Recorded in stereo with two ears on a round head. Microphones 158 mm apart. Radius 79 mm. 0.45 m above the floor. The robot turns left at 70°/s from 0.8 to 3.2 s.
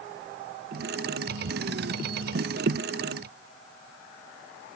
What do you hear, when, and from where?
Only background noise.